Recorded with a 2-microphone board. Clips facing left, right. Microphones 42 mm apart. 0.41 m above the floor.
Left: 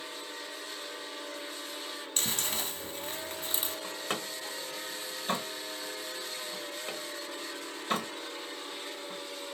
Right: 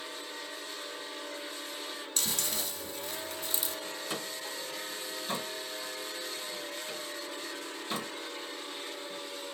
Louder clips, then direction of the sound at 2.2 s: Left 2 dB; 40° left (ahead or behind).